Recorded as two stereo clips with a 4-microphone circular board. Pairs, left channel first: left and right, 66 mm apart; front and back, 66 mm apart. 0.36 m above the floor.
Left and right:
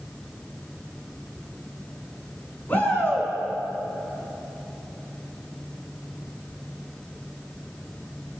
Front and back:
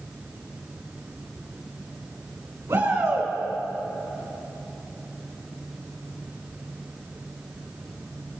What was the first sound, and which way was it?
A shout, 150° left.